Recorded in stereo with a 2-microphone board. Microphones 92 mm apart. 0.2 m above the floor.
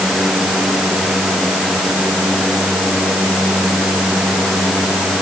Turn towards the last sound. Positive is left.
No sound to turn to.